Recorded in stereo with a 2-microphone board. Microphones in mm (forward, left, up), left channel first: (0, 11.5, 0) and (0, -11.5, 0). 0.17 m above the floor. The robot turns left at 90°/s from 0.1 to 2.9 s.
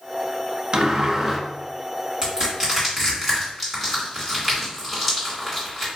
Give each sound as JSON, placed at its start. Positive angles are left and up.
{"t": 0.7, "sound": "a sliding door", "azimuth_deg": -115, "distance_m": 0.8}
{"t": 2.2, "sound": "crushing", "side_deg": -35, "distance_m": 1.9}